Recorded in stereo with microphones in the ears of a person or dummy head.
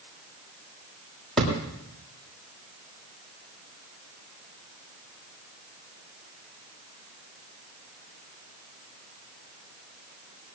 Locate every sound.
1.4 s a thud: centre (ahead or behind), 8 m